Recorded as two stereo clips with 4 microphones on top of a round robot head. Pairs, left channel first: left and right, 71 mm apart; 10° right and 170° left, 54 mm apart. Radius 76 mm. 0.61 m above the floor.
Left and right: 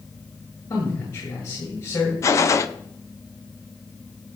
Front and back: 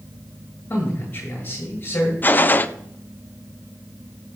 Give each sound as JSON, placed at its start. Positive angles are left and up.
{"t": 0.7, "sound": "a man speaking", "azimuth_deg": 45, "distance_m": 9.0}
{"t": 2.2, "sound": "a gunshot", "azimuth_deg": 45, "distance_m": 0.9}